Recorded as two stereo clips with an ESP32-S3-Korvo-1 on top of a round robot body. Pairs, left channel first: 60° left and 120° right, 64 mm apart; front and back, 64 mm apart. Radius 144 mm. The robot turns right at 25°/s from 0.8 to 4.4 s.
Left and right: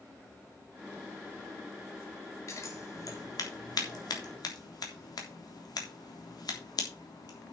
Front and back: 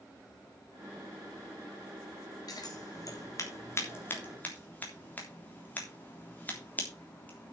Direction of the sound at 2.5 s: 15° left.